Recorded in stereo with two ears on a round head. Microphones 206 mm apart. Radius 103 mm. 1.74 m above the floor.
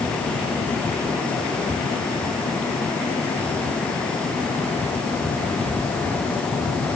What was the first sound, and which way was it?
Only background noise.